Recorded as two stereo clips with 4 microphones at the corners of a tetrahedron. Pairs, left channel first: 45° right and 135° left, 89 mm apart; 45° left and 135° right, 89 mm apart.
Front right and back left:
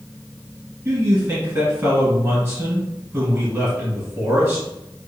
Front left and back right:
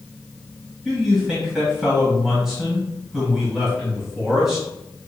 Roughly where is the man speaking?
Behind left.